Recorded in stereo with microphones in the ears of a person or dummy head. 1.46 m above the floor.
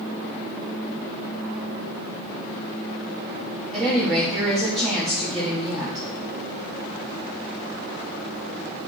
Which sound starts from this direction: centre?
A woman speaking, at 3.7 s.